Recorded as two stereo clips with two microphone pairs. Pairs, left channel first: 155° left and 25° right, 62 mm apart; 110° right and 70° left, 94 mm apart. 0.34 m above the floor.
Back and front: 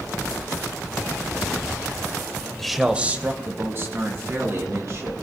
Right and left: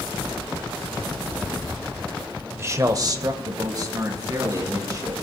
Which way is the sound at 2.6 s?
85° left.